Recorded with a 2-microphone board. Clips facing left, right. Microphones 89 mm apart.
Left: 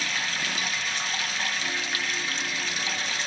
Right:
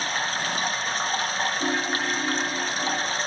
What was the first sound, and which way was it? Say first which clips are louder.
Running water: right 4 dB; 35° right (ahead or behind).